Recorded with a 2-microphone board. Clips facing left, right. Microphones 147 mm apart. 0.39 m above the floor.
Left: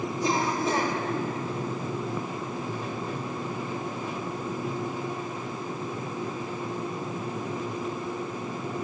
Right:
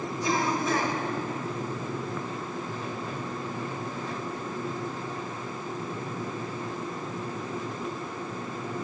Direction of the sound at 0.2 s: 30° left (ahead or behind).